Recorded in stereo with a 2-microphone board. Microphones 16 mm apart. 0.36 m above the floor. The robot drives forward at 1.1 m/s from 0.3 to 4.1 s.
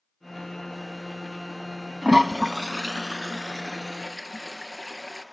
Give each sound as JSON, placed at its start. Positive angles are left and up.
{"t": 2.0, "sound": "a toilet flushing", "side_deg": -75, "distance_m": 1.0}